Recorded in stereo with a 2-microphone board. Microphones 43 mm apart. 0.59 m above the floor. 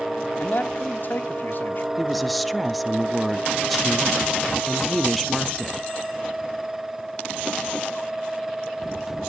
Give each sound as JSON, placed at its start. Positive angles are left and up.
{"t": 0.4, "sound": "a man speaking", "side_deg": 50, "distance_m": 1.0}
{"t": 2.0, "sound": "a woman speaking", "side_deg": 0, "distance_m": 0.5}